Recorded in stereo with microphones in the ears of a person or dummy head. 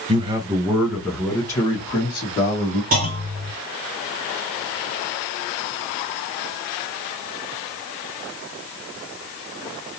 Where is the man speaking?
30° right (ahead or behind), 0.9 m; by 2.8 s 30° left (ahead or behind), 1.8 m.